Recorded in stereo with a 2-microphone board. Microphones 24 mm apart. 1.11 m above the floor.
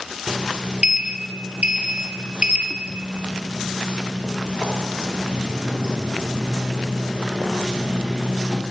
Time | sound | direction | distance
0.3 | a sliding door | 45° right (ahead or behind) | 1.4 m